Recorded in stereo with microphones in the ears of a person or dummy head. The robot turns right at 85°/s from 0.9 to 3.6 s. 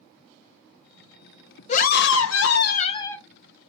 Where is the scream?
45° left, 0.5 m; by 3.2 s 175° left, 0.5 m.